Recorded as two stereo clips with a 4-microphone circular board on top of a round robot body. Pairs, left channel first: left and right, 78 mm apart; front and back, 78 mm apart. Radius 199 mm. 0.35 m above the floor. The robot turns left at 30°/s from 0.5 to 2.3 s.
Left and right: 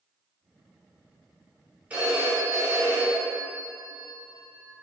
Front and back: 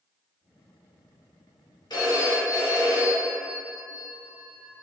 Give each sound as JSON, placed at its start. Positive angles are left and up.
{"t": 1.9, "sound": "a phone ringing", "azimuth_deg": -20, "distance_m": 1.2}